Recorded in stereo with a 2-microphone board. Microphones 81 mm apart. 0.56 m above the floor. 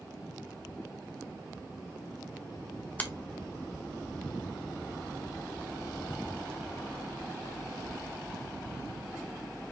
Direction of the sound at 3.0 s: 20° left (ahead or behind).